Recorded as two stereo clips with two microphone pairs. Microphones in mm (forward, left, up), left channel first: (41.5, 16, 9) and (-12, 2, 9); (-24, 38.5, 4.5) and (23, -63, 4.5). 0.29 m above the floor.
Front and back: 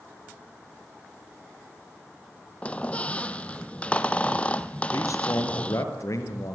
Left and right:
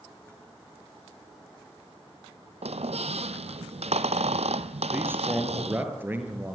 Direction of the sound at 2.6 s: 50° right.